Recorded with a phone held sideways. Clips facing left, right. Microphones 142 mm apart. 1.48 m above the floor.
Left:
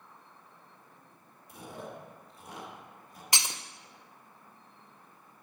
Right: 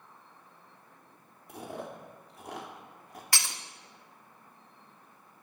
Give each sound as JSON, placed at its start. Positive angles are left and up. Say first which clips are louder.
{"t": 1.5, "sound": "chewing", "louder": "right 3 dB", "side_deg": -65, "distance_m": 2.0}
{"t": 3.3, "sound": "breaking glass", "louder": "left 2 dB", "side_deg": 20, "distance_m": 0.6}